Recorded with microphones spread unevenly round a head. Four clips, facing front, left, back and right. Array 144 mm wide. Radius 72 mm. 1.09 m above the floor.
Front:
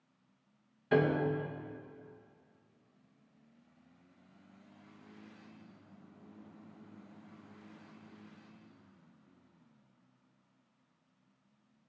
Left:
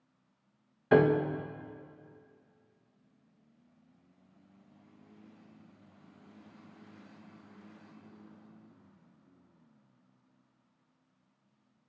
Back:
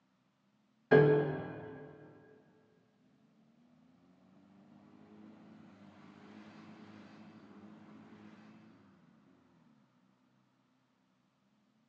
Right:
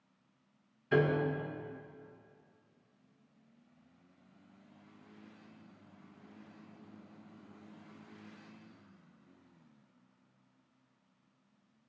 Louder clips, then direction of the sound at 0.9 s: Left 5 dB, back 4 dB; 100° left.